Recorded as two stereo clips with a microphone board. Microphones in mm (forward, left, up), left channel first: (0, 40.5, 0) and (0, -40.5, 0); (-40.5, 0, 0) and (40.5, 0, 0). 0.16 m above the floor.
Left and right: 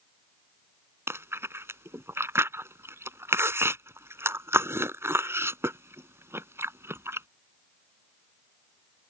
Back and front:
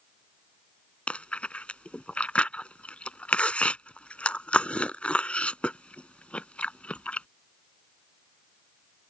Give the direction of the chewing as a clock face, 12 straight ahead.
4 o'clock.